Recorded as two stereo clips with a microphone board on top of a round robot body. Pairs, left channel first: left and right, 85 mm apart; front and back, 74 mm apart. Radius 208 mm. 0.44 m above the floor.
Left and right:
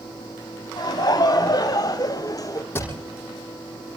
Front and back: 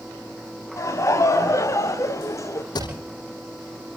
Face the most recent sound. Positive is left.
turn(degrees=25)